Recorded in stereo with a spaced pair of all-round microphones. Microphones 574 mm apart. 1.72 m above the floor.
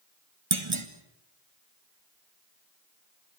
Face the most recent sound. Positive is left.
turn(degrees=-55)  # may be behind; listen again after turning